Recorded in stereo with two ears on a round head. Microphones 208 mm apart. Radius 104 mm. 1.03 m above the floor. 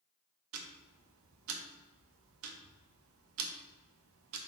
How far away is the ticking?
About 0.5 m.